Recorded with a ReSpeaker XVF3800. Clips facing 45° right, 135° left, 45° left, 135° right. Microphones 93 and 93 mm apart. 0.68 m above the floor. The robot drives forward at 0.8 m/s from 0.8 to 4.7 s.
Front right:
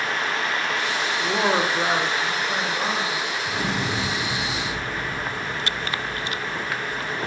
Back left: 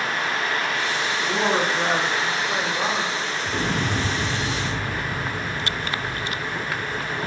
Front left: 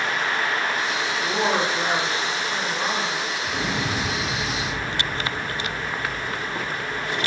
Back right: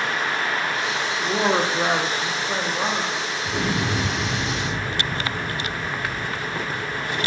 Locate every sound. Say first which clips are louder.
1.2 s a woman speaking: front right 1 dB, back right 2 dB; 50° right, 1.0 m; by 3.3 s 160° right, 1.7 m
3.4 s an explosion: back left 2 dB, back right 4 dB; 175° left, 3 m